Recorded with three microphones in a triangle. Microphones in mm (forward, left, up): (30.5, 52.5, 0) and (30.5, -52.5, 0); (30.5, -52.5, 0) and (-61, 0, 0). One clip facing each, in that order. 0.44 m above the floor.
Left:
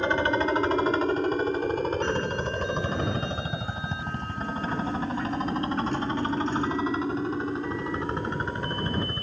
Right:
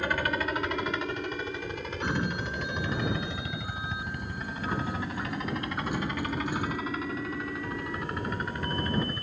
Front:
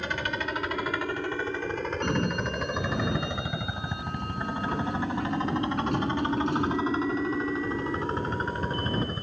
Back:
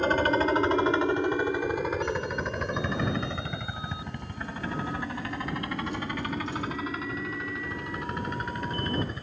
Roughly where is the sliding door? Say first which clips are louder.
Left 4 dB, front 2 dB; ahead.